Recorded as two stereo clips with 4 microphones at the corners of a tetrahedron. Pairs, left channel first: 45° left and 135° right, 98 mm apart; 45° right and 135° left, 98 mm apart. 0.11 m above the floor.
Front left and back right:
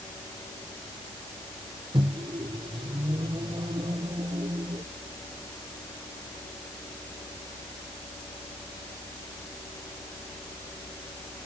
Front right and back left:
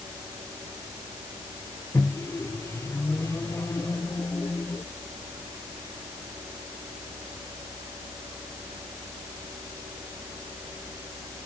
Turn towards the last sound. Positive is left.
turn(degrees=-105)